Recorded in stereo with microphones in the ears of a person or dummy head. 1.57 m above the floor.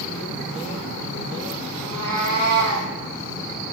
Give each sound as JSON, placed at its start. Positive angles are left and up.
{"t": 1.8, "sound": "a cat meowing", "side_deg": -75, "distance_m": 4.5}